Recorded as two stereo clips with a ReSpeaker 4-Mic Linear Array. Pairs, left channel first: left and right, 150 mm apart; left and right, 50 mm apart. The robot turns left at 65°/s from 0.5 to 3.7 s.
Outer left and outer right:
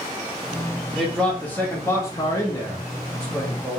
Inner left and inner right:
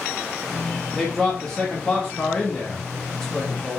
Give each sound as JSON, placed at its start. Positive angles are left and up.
{"t": 1.0, "sound": "a man speaking", "side_deg": 0, "distance_m": 0.8}